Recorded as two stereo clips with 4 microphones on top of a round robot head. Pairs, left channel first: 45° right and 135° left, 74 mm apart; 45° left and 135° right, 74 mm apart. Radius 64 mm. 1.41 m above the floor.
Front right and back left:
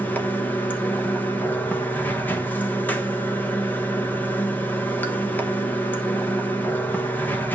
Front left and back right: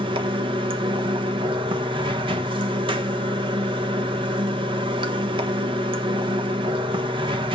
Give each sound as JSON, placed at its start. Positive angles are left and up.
{"t": 0.0, "sound": "running water", "azimuth_deg": -115, "distance_m": 1.2}